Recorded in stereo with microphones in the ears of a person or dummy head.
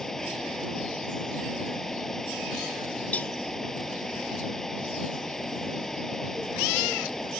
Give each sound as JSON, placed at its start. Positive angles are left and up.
{"t": 0.0, "sound": "a fan", "side_deg": 0}
{"t": 3.1, "sound": "a cowbell", "side_deg": 10}